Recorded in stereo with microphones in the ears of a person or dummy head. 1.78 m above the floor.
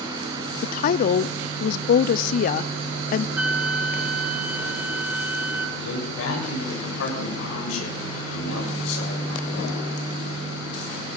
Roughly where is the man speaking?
Left.